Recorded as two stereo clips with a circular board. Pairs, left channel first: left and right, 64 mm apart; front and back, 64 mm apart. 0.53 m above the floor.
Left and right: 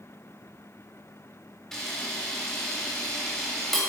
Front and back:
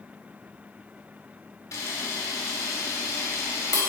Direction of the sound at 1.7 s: 10° left.